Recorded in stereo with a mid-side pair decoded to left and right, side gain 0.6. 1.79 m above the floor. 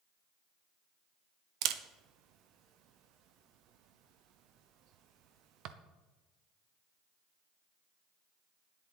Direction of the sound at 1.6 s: 65° right.